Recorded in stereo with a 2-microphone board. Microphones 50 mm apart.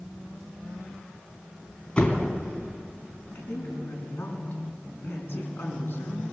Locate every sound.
2.0 s a door slam: 25° left (ahead or behind), 3 m
3.4 s a woman speaking: 45° left (ahead or behind), 6 m